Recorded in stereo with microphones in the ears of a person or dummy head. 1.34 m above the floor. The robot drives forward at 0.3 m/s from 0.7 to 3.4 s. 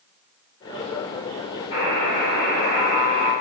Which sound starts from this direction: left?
A buzzer, at 1.7 s.